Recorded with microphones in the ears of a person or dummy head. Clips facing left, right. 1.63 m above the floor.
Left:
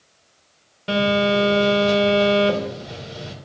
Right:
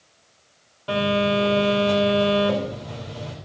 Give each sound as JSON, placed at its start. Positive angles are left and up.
{"t": 0.9, "sound": "a phone buzzing", "side_deg": 30, "distance_m": 3.5}